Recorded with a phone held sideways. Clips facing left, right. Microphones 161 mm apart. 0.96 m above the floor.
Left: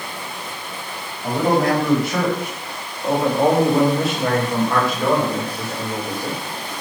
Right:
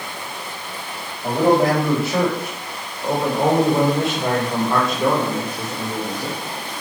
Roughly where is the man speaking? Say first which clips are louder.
Right 2 dB; right.